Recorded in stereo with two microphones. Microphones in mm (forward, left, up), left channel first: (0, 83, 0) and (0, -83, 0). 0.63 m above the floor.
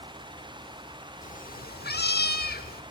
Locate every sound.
1.2 s a cat meowing: 50° left (ahead or behind), 1.1 m; by 2.8 s 65° left (ahead or behind), 1.3 m